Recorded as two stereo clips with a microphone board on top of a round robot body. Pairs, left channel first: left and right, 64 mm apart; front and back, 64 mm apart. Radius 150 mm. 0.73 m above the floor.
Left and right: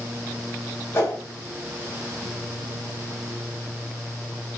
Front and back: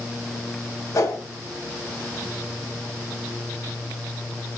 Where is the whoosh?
35° left, 5 m.